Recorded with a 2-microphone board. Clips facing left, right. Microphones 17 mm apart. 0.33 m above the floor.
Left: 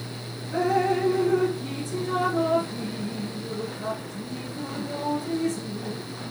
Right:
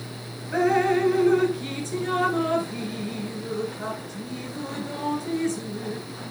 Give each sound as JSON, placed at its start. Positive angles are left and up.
{"t": 0.5, "sound": "dripping", "side_deg": -75, "distance_m": 1.9}